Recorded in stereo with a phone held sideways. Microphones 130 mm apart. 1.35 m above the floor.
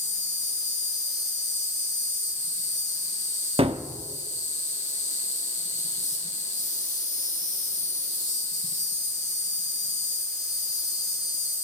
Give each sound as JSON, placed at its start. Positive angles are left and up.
{"t": 0.0, "sound": "an insect", "side_deg": 60, "distance_m": 2.5}
{"t": 3.6, "sound": "a gunshot", "side_deg": -45, "distance_m": 1.0}